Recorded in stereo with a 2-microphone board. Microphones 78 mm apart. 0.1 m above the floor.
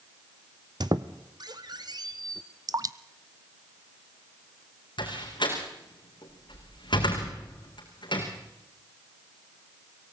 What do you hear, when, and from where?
0.8 s a squeak: 60° right (ahead or behind), 1.0 m
2.7 s dripping: 50° right (ahead or behind), 0.6 m
5.0 s a door slam: 80° left, 5 m